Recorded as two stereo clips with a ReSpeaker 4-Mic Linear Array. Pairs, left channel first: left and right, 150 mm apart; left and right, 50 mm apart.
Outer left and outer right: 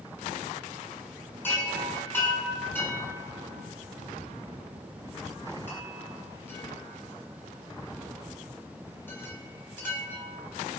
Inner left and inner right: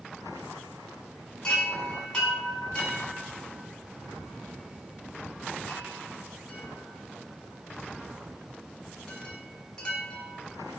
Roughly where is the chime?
Centre.